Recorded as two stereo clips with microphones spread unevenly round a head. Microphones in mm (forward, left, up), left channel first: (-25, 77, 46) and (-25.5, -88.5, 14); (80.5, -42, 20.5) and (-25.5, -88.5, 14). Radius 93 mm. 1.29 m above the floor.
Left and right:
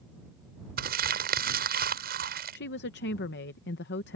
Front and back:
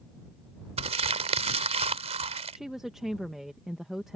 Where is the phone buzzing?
No phone buzzing in this recording.